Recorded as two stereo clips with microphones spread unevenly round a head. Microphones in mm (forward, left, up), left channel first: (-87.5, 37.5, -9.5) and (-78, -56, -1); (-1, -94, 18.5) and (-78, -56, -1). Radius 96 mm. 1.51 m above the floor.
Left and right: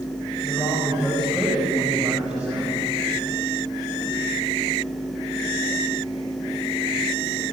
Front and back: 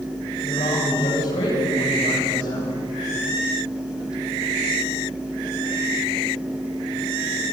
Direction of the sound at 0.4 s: 20° left.